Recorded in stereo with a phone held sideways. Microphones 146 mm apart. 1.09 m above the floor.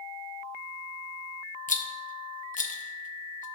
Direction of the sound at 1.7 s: 60° left (ahead or behind).